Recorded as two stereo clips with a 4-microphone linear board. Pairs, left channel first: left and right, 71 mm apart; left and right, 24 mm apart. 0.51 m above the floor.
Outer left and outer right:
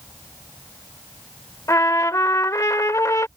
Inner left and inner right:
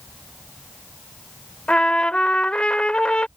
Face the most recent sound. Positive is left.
turn(degrees=45)  # may be behind; listen again after turning